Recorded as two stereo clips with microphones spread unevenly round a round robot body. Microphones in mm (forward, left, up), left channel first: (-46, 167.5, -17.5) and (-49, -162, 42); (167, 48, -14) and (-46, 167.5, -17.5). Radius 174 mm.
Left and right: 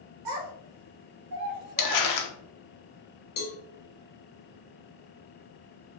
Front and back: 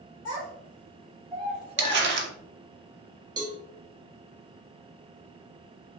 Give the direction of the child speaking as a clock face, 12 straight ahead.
2 o'clock.